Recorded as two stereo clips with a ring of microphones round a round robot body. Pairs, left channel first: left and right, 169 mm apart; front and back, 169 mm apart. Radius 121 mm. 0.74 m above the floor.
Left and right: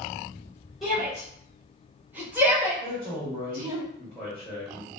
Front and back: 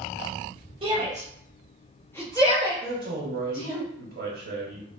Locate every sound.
0.8 s a shout: straight behind, 1.1 m; by 3.8 s 15° right, 1.5 m
2.8 s a man speaking: 175° left, 1.0 m